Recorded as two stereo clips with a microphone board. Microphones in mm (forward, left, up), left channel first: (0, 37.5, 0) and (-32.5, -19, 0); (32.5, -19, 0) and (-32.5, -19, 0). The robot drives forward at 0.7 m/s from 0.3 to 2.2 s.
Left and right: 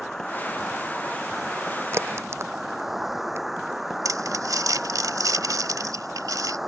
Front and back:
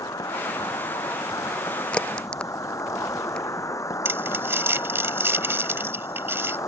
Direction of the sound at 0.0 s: 25° right.